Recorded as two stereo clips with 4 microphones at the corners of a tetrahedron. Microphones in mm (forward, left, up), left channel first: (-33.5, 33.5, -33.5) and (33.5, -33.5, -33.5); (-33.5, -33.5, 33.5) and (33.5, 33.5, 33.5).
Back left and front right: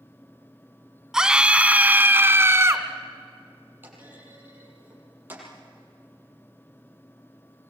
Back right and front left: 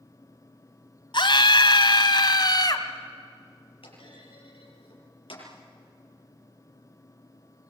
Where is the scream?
130° right, 1.9 m; by 2.9 s 100° right, 2 m.